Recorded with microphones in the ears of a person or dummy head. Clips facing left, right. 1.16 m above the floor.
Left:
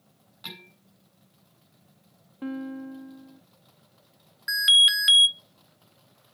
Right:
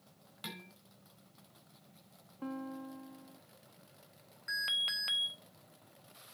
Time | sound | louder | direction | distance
0.4 | dishes clattering | left 2 dB | 50° right (ahead or behind) | 4.5 m
2.4 | a guitar | left 8 dB | 20° left (ahead or behind) | 0.9 m
4.5 | an alarm | left 12 dB | 25° left (ahead or behind) | 0.9 m